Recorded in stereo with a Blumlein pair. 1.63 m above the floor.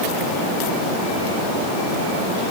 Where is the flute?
I don't hear a flute.